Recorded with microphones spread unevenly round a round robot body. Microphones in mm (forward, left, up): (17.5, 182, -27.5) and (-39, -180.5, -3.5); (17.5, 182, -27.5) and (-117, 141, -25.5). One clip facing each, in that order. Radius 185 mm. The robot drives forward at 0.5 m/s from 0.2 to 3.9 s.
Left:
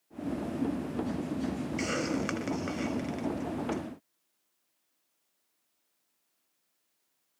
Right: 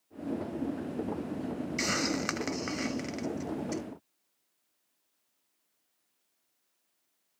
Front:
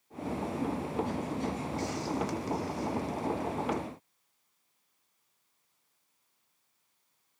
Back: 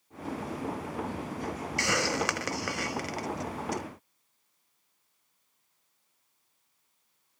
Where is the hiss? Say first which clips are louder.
Left 1 dB, back 5 dB; 170° right.